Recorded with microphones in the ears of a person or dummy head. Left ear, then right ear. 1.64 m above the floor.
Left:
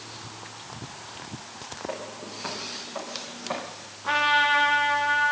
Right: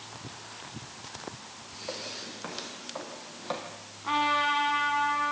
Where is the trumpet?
5° right (ahead or behind), 2.5 m.